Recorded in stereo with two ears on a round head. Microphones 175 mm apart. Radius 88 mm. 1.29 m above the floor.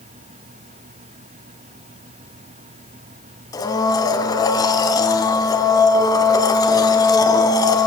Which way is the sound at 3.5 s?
20° left (ahead or behind).